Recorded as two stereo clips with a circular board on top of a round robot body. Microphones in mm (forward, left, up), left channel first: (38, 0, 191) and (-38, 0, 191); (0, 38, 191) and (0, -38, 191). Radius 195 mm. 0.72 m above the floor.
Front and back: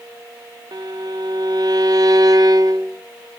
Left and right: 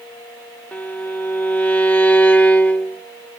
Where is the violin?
160° left, 1.0 m.